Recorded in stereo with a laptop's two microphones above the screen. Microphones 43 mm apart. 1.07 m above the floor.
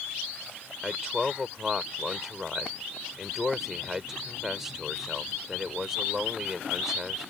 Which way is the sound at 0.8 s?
10° right (ahead or behind).